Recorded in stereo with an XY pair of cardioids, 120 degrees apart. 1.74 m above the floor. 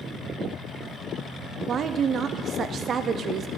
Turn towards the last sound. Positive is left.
turn(degrees=-50)